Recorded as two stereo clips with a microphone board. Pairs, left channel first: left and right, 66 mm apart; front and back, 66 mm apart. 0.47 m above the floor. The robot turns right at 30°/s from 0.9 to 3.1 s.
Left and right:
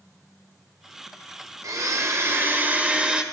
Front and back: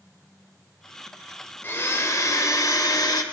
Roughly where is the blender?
Ahead right.